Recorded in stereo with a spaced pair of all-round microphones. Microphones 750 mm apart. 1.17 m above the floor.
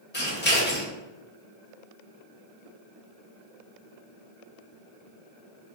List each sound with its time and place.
0.1 s scissors: 15° left (ahead or behind), 0.6 m